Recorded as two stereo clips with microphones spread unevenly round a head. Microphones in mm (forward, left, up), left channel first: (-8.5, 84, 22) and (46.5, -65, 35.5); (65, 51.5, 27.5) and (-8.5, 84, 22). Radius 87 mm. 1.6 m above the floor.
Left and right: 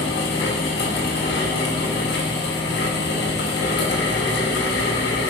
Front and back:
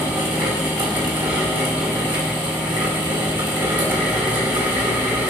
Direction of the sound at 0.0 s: 135° left.